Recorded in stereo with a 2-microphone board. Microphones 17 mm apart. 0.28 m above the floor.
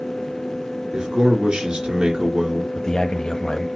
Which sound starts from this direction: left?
A man speaking, at 2.8 s.